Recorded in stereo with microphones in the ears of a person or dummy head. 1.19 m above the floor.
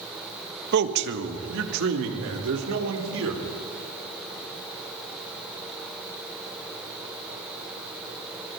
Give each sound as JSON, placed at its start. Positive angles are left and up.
{"t": 0.7, "sound": "a man speaking", "side_deg": -60, "distance_m": 1.5}